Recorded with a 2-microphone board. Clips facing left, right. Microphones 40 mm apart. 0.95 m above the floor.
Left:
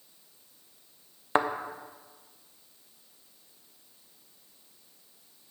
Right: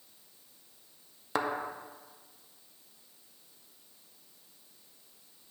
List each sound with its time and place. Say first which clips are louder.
1.4 s a thud: left 6 dB; 40° left (ahead or behind), 0.5 m